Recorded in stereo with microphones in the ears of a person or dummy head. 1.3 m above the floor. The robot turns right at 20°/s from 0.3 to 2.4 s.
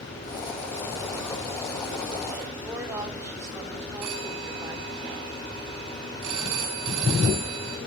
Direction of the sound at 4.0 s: 70° right (ahead or behind).